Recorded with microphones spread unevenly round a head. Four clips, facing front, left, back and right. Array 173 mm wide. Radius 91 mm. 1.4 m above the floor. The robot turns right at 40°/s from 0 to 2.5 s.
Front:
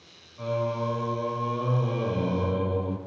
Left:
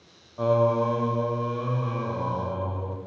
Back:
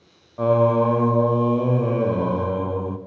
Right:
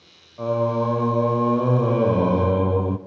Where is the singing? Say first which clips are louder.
Even, back 11 dB; 175° left, 0.6 m; by 3.0 s 100° right, 0.6 m.